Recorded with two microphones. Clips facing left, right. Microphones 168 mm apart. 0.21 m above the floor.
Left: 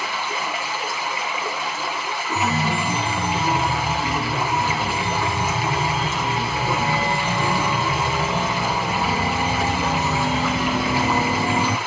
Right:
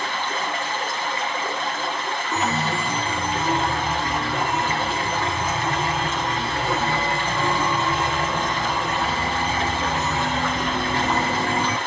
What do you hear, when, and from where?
0.0 s running water: 10° left (ahead or behind), 4 m
2.3 s a chime: 30° left (ahead or behind), 1.0 m